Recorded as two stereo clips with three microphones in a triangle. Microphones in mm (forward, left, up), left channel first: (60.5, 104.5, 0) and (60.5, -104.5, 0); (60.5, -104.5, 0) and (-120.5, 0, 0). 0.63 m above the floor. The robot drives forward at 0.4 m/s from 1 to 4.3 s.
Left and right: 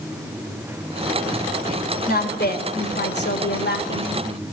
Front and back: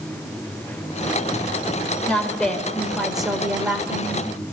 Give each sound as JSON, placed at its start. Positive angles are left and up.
{"t": 2.1, "sound": "a woman speaking", "azimuth_deg": 55, "distance_m": 3.0}